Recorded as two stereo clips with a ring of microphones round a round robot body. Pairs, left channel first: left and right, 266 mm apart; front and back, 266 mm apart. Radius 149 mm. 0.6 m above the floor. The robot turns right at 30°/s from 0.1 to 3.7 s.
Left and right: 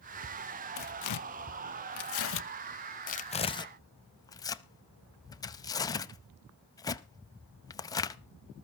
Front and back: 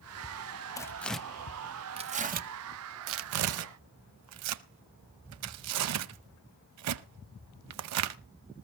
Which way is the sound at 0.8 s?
75° left.